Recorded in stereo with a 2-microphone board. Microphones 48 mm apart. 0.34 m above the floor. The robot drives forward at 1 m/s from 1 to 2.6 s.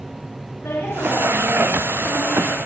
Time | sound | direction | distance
0.6 | a woman speaking | 75° left (ahead or behind) | 6 m